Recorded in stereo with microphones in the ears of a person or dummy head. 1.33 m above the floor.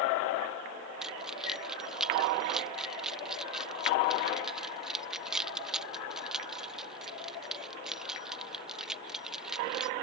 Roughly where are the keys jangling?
Centre.